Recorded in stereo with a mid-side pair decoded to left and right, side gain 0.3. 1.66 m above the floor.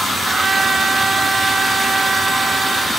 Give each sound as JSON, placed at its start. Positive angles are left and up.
{"t": 0.3, "sound": "a trumpet", "azimuth_deg": -45}